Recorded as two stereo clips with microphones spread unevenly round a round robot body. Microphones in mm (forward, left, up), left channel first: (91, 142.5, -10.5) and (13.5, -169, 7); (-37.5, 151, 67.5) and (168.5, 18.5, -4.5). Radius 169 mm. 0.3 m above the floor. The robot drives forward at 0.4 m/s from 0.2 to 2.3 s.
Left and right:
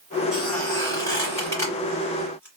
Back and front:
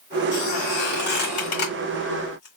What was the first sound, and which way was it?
A squeak, 150° left.